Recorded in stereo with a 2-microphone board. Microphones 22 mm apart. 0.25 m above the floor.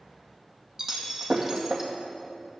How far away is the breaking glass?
About 2 m.